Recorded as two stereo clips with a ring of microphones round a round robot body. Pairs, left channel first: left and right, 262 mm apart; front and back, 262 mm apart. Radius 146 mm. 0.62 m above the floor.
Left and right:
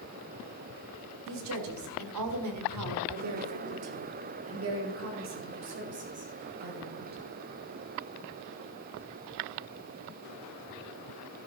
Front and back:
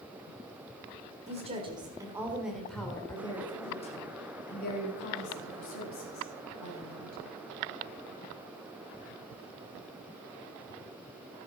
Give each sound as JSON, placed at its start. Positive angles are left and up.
{"t": 1.3, "sound": "a woman speaking", "azimuth_deg": -115, "distance_m": 1.9}